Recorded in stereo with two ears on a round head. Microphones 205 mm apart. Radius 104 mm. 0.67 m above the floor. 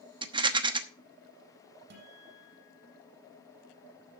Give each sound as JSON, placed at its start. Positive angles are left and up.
{"t": 0.2, "sound": "a rattle", "side_deg": -20, "distance_m": 1.0}
{"t": 1.9, "sound": "a guitar", "side_deg": -55, "distance_m": 6.0}